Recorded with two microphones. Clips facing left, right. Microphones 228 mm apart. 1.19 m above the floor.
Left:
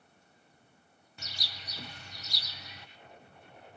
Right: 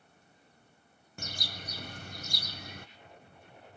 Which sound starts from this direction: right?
A bird, at 1.2 s.